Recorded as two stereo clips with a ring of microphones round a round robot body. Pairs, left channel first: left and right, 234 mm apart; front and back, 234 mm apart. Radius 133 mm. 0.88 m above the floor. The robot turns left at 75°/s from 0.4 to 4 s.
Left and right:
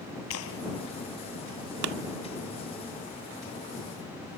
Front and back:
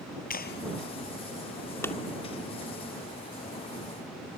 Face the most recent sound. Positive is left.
turn(degrees=120)